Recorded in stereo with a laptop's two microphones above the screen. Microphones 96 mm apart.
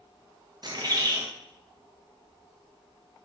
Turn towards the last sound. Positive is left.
turn(degrees=-45)  # may be behind; listen again after turning